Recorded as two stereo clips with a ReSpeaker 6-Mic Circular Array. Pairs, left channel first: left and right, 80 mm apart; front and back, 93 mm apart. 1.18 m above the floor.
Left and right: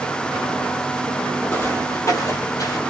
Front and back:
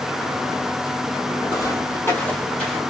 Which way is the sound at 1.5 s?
35° left.